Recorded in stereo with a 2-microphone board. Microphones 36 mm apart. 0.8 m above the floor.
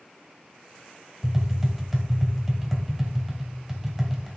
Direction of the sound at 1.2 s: 5° right (ahead or behind).